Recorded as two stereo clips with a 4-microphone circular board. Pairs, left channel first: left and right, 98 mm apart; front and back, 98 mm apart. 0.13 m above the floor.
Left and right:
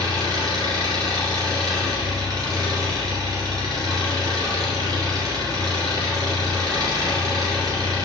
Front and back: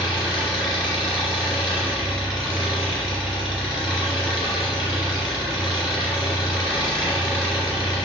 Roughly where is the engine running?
Right.